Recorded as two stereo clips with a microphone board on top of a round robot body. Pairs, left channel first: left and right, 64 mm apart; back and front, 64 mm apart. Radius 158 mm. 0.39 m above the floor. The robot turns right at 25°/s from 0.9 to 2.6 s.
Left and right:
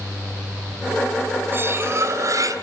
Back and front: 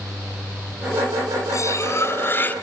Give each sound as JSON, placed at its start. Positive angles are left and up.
{"t": 1.5, "sound": "cutlery clinking", "azimuth_deg": -145, "distance_m": 1.5}